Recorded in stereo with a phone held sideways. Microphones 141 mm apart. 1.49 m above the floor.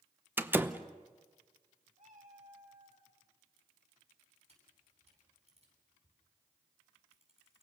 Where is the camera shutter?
45° right (ahead or behind), 9.5 m.